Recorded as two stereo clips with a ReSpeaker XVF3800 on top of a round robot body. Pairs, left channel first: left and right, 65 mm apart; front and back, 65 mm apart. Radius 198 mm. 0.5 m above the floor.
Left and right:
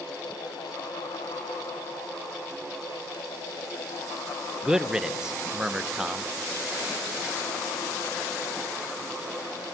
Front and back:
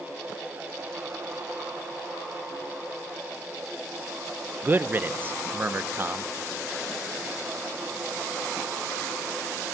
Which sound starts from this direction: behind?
A man speaking, at 4.6 s.